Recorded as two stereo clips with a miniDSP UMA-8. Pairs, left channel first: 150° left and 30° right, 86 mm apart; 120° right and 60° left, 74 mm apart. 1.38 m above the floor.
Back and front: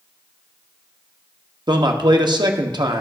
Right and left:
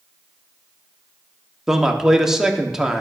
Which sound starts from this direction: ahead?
A man speaking, at 1.7 s.